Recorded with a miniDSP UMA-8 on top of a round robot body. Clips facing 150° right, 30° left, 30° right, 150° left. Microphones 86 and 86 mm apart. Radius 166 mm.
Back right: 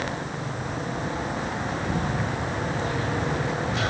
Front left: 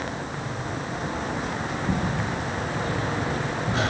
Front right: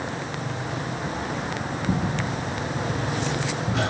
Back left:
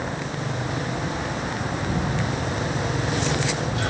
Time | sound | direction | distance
1.9 | footsteps | 30° right | 9.5 m